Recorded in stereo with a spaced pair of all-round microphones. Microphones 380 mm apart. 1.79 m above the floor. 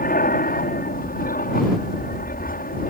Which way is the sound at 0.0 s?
25° left (ahead or behind).